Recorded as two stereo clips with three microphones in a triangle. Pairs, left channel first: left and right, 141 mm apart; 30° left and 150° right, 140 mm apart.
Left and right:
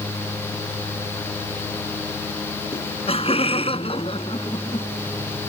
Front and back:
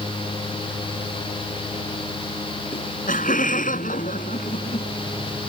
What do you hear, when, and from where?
2.7 s laughter: 45° left; by 4.9 s 40° left